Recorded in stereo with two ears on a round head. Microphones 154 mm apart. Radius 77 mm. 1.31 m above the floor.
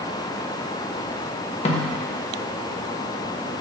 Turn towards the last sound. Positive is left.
turn(degrees=35)  # may be behind; listen again after turning